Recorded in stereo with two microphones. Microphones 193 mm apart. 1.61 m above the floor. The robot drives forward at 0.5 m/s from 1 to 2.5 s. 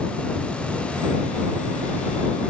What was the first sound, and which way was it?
Only background noise.